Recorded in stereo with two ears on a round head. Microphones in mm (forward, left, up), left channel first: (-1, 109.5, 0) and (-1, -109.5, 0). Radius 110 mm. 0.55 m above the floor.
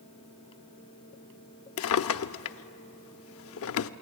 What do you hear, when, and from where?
1.8 s a drawer: 60° left (ahead or behind), 0.5 m